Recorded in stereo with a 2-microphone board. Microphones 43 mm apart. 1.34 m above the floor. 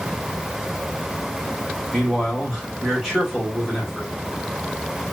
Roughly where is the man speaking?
Centre.